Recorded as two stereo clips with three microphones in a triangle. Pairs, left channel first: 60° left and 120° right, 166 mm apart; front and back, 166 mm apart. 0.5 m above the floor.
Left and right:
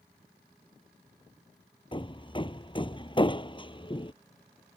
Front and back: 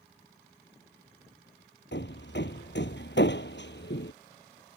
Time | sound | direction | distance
1.9 | hammering | 5° right | ?